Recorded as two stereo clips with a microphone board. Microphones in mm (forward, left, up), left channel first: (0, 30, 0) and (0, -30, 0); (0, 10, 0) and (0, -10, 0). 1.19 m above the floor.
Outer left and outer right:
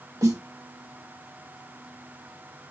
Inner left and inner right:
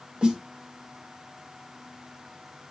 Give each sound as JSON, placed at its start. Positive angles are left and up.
{"t": 0.2, "sound": "a snare drum", "side_deg": -60, "distance_m": 1.9}